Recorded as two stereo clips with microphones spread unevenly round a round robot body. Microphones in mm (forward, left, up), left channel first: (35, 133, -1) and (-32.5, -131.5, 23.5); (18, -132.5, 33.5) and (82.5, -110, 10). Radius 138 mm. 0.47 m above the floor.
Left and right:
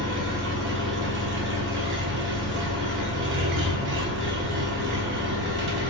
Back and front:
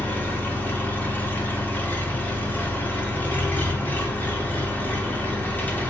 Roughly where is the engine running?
Right.